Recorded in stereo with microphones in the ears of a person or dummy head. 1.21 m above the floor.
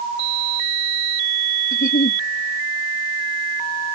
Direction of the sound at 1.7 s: 40° left (ahead or behind).